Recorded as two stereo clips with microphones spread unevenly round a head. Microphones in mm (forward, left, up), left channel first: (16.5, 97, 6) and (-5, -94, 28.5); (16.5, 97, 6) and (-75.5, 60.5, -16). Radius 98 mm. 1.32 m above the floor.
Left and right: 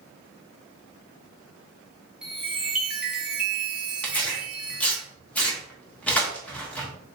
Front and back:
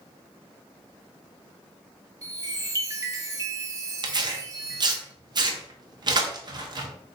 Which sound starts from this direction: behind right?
A chime, at 2.2 s.